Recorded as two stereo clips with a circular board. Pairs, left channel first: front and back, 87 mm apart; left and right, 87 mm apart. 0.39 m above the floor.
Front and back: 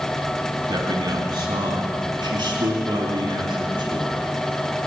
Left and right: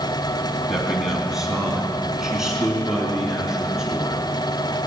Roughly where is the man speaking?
Behind.